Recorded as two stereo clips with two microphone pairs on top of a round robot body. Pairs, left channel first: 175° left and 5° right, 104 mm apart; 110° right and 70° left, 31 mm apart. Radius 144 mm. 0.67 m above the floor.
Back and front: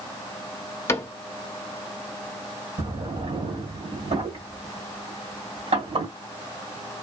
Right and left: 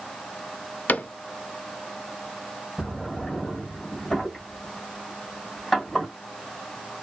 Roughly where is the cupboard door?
Behind right.